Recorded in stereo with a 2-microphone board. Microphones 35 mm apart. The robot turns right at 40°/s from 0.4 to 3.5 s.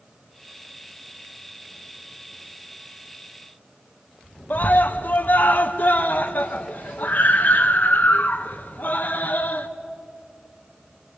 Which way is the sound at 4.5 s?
55° left (ahead or behind).